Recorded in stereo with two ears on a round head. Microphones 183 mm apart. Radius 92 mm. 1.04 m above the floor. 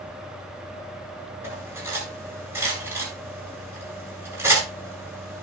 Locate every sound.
1.4 s cutlery clinking: 10° right (ahead or behind), 9.5 m